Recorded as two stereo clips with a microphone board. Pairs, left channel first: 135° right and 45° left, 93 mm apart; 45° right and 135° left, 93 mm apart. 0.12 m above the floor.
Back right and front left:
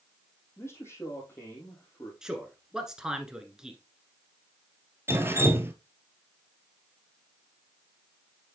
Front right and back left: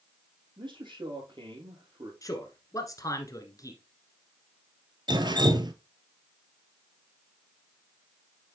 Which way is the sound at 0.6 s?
165° left.